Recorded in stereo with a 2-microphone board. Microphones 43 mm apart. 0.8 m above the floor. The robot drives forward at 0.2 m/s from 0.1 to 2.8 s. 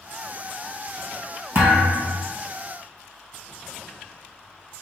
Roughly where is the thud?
Right.